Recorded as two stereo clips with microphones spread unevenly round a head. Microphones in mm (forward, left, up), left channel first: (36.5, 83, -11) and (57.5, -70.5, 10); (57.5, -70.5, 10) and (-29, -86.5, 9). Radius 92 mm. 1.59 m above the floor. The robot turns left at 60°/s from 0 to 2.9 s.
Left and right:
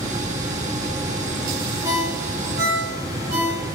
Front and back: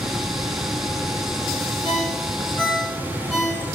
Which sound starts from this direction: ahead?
A ringtone, at 1.8 s.